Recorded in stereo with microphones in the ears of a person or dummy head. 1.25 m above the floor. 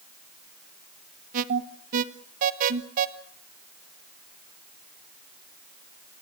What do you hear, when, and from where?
1.3 s an alarm: 45° right (ahead or behind), 1.2 m